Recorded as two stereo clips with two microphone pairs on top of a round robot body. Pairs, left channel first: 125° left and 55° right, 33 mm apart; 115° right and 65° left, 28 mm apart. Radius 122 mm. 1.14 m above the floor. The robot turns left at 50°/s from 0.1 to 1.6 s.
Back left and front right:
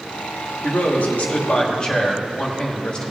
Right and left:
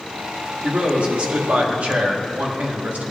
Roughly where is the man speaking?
Behind left.